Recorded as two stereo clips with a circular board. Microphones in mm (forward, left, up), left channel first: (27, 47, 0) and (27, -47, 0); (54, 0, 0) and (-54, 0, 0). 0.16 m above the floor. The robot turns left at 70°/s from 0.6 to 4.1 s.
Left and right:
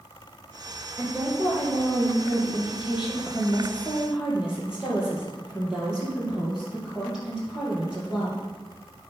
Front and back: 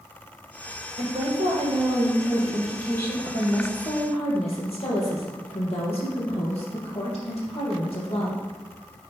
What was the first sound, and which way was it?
A woman speaking, 150° right.